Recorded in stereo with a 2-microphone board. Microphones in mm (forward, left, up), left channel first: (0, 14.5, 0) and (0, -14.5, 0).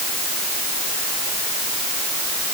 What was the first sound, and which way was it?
Only background noise.